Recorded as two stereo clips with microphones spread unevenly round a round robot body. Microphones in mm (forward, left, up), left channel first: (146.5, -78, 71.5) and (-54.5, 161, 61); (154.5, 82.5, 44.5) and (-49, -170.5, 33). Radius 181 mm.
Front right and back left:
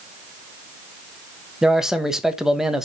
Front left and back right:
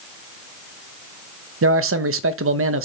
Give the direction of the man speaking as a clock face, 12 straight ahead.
5 o'clock.